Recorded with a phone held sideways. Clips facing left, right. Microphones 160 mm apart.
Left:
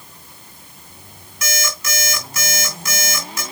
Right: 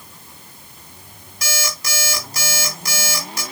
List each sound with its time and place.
1.4 s an alarm clock: 40° right (ahead or behind), 2.5 m